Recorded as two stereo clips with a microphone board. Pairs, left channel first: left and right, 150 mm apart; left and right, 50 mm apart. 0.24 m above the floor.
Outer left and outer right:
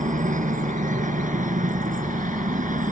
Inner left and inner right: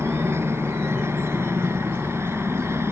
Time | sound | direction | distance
0.0 | a helicopter | 60° right (ahead or behind) | ?